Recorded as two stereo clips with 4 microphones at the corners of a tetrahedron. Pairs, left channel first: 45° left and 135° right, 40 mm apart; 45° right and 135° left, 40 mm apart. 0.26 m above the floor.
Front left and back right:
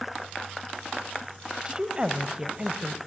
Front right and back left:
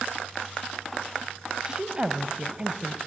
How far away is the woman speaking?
About 1.3 m.